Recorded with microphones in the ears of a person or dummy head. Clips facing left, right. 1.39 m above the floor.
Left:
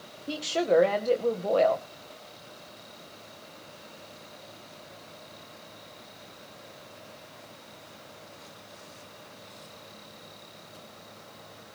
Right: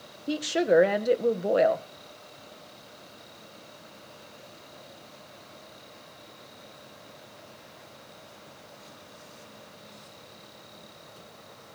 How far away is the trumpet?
No trumpet in this recording.